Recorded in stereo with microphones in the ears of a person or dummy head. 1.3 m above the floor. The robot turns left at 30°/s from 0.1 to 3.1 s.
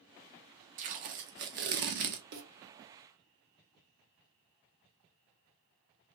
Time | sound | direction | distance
0.8 | tape being pulled | 70° right | 0.5 m
2.3 | a snare drum | 60° right (ahead or behind) | 0.7 m